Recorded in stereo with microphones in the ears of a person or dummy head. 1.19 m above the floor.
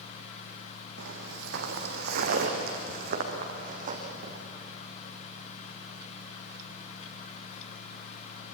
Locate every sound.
1.0 s footsteps: 65° right (ahead or behind), 3 m; by 4.4 s 40° right (ahead or behind), 4 m